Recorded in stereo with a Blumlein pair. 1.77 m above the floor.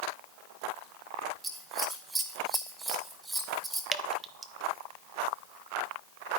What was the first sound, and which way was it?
Scissors, 5° right.